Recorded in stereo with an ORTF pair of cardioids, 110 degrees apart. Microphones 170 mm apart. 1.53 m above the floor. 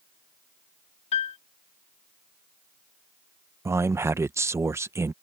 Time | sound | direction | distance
1.1 | a piano | 40° left | ?
3.6 | a man speaking | 15° right | ?